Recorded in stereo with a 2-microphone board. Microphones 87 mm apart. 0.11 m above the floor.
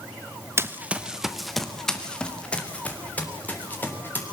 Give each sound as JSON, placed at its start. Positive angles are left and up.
{"t": 0.6, "sound": "running footsteps", "side_deg": -30, "distance_m": 1.1}